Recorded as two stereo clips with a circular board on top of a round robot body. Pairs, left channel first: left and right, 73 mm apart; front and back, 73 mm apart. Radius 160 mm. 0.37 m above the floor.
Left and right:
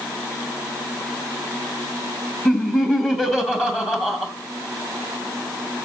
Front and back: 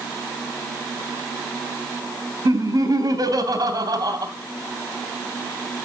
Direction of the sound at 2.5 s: 160° left.